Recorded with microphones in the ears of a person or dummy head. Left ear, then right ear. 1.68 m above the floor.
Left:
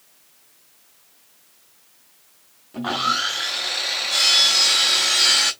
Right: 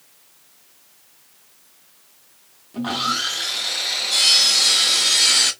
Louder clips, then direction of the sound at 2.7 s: Left 1 dB; 20° left (ahead or behind).